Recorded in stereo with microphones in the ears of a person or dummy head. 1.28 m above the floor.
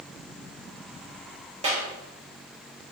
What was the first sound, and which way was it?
A clap, 30° right (ahead or behind).